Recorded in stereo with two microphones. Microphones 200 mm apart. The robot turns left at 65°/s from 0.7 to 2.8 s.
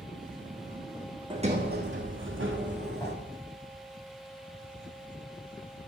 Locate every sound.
1.3 s a sliding door: 25° right, 3 m; by 3.1 s 120° right, 3 m
3.0 s a whoosh: 15° left (ahead or behind), 8 m